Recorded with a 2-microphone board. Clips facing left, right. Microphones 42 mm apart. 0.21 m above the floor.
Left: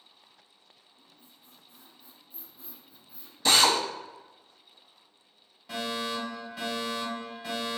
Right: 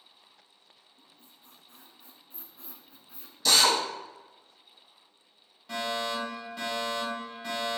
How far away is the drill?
About 0.6 m.